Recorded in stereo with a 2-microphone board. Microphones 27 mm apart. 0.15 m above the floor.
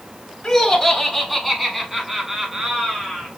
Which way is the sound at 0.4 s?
10° left (ahead or behind).